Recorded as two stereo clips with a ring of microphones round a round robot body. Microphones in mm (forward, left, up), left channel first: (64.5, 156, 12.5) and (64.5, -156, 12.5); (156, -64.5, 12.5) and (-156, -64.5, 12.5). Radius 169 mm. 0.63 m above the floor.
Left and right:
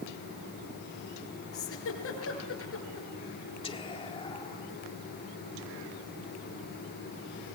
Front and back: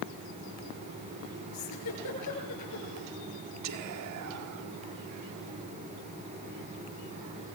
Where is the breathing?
No breathing in this recording.